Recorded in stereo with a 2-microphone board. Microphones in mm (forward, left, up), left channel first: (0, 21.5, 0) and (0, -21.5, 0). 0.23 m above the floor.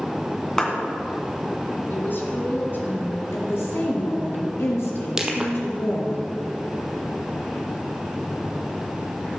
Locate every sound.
0.6 s a clap: 20° left (ahead or behind), 2 m
1.9 s a woman speaking: 55° left (ahead or behind), 2.5 m
3.3 s a woman speaking: 70° left (ahead or behind), 3.5 m
5.2 s crushing: 15° right (ahead or behind), 1.2 m